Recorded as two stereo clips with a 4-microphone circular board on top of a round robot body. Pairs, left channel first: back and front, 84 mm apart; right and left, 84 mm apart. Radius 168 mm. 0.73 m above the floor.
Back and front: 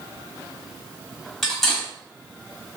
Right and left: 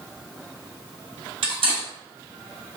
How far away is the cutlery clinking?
About 1.3 m.